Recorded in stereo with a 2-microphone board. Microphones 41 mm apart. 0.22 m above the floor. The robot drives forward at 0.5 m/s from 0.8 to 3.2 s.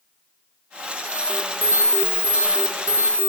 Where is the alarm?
65° right (ahead or behind), 7 m; by 3.3 s 75° right (ahead or behind), 7 m.